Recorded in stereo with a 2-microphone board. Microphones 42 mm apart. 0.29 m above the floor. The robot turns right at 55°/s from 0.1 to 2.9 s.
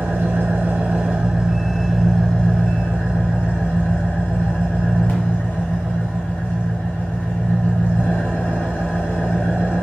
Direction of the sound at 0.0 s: 100° right.